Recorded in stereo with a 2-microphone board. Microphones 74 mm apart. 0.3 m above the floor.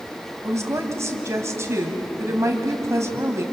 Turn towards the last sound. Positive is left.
turn(degrees=-40)  # may be behind; listen again after turning